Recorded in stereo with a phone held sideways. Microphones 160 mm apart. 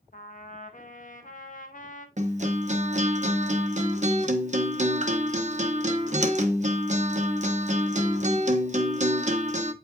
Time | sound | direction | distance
0.1 | a trumpet | 55° left (ahead or behind) | 0.8 m
2.2 | a guitar | 45° right (ahead or behind) | 1.0 m